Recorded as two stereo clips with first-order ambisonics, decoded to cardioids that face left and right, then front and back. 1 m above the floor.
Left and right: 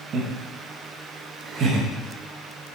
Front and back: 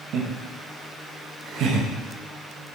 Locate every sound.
0.1 s laughter: 145° right, 1.4 m